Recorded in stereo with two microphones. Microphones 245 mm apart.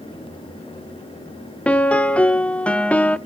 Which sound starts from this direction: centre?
A piano, at 1.7 s.